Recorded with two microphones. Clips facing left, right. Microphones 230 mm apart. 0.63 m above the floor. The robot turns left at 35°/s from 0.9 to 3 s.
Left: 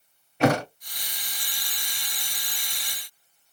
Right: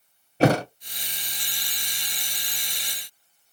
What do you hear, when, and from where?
0.4 s a thud: 35° right (ahead or behind), 0.6 m